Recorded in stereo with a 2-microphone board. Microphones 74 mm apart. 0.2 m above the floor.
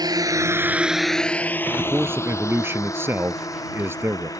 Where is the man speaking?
30° right (ahead or behind).